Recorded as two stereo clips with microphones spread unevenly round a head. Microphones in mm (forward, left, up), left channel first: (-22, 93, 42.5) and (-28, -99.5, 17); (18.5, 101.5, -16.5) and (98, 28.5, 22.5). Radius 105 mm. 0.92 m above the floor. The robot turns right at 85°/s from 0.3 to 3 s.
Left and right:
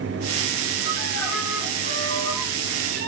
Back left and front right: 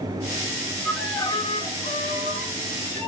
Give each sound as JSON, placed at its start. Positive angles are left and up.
{"t": 0.8, "sound": "a violin", "azimuth_deg": 50, "distance_m": 4.5}